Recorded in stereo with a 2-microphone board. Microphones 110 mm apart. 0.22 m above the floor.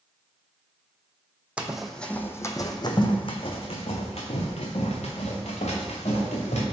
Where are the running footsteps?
10° right (ahead or behind), 0.7 m; by 6.6 s 80° left, 2.5 m.